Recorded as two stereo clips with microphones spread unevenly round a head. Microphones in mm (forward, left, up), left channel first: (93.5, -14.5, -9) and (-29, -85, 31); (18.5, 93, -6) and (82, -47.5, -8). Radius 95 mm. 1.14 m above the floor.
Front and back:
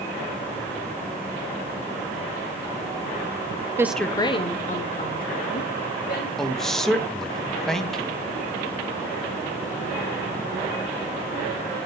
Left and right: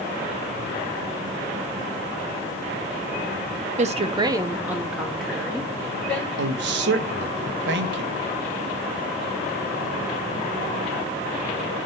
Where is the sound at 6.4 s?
55° right, 0.9 m.